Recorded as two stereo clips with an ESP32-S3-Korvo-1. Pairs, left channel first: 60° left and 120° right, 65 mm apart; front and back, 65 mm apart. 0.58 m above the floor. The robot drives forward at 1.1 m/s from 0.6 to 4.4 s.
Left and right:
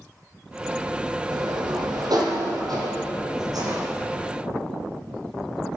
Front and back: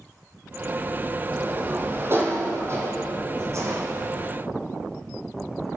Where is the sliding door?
120° right, 5.5 m; by 3.9 s 140° right, 7 m.